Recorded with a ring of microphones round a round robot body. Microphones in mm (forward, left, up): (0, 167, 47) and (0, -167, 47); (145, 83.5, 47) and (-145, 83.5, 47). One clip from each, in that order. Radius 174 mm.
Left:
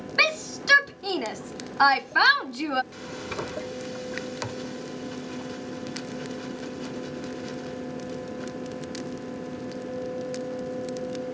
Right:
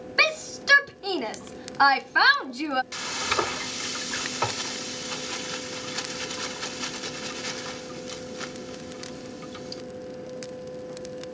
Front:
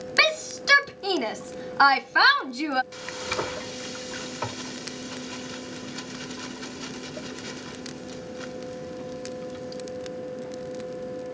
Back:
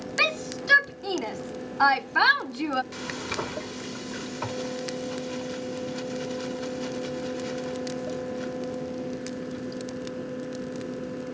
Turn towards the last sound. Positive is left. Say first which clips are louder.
# right 8 dB, front 1 dB
turn(degrees=-80)